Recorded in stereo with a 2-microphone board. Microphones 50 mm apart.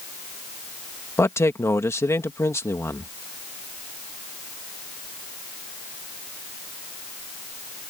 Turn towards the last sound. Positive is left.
turn(degrees=70)  # may be behind; listen again after turning